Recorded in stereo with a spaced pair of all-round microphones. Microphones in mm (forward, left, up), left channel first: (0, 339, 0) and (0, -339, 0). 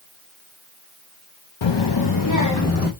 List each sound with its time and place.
1.6 s a child speaking: 45° left (ahead or behind), 0.7 m; by 2.9 s 20° left (ahead or behind), 1.4 m